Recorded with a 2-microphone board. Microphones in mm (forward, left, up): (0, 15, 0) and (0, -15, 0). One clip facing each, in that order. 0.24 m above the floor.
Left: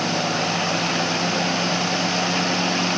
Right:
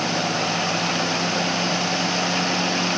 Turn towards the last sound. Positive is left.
No sound to turn to.